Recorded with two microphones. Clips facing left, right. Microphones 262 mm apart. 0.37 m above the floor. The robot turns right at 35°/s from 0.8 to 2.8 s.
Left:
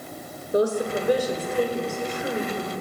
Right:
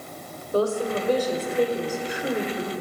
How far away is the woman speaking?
About 1.5 m.